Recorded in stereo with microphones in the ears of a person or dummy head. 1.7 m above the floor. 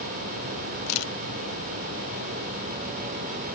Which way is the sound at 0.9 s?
80° left.